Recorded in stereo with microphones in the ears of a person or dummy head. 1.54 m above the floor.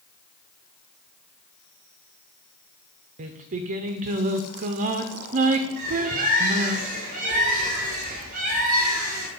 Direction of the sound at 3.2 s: 40° right (ahead or behind).